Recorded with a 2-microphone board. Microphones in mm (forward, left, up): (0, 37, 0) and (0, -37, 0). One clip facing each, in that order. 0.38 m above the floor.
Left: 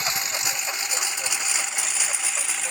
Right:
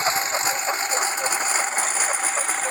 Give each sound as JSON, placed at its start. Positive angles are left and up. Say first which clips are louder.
{"t": 0.0, "sound": "a lawn mower", "louder": "right 6 dB", "side_deg": -35}